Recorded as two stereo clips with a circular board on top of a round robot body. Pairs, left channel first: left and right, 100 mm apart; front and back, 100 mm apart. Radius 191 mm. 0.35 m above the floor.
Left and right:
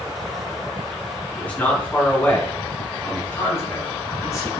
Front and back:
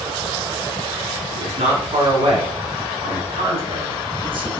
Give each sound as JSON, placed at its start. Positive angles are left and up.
{"t": 1.4, "sound": "a man speaking", "azimuth_deg": 165, "distance_m": 4.5}